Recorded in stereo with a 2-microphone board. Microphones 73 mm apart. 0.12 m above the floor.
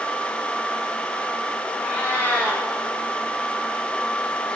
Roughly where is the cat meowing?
Centre.